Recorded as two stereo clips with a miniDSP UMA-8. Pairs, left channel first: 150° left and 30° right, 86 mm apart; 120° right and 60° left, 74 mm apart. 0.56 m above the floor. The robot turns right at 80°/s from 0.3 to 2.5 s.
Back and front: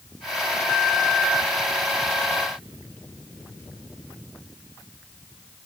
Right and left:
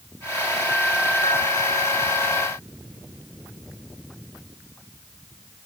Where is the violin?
No violin in this recording.